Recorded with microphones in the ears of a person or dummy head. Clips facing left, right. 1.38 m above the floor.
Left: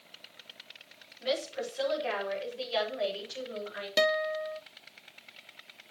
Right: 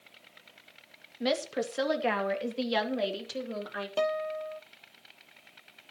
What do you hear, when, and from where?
1.2 s a woman speaking: 80° right, 2 m
4.0 s a guitar: 20° left (ahead or behind), 0.8 m